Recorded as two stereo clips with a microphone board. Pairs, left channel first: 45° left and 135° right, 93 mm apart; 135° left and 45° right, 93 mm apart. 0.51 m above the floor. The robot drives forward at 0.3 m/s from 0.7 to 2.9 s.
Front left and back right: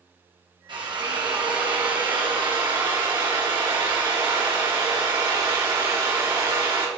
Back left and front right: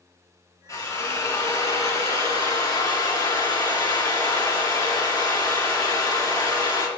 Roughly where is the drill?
Behind.